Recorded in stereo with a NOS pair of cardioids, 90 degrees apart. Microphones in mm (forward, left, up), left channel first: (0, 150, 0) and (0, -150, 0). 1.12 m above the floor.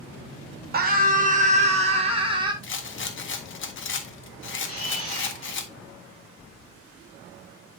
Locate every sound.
0.7 s a scream: 30° right, 2.5 m; by 2.5 s 15° right, 3.5 m
2.6 s a rattle: 40° left, 1.5 m
4.7 s a camera shutter: 20° left, 4.5 m